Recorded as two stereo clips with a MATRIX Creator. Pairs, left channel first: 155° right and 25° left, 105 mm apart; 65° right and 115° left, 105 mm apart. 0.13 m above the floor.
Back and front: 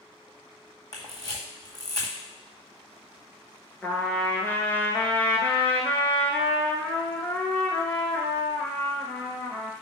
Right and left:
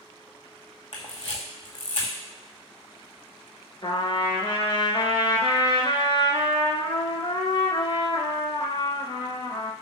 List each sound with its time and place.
0.9 s a camera shutter: 105° right, 1.7 m
3.8 s a trumpet: 90° right, 1.0 m